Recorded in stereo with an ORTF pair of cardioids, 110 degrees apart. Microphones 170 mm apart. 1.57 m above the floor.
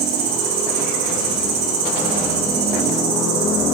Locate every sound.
0.0 s an insect: 60° right, 4 m